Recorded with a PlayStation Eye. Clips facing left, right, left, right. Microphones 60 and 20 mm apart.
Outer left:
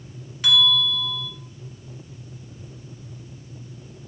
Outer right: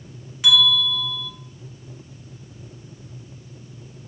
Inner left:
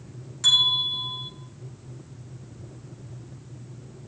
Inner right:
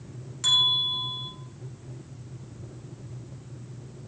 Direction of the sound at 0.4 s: 5° right (ahead or behind).